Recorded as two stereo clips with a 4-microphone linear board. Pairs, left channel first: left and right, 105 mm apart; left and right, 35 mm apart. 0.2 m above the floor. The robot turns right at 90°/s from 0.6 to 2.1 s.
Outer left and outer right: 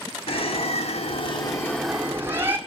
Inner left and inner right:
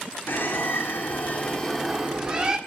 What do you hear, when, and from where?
0.3 s a bird: 65° left, 1.6 m; by 2.6 s 160° right, 1.6 m